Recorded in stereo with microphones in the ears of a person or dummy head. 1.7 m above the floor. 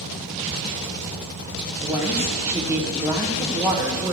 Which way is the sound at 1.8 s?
15° right (ahead or behind).